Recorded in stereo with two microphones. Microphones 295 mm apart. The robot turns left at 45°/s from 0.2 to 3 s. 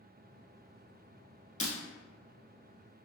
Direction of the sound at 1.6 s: 25° left (ahead or behind).